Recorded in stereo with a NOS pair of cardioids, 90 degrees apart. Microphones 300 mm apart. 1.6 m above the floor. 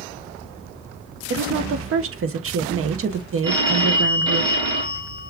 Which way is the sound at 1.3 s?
50° right.